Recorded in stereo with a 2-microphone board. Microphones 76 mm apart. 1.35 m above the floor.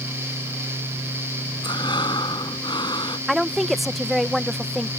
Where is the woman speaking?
Centre (ahead or behind).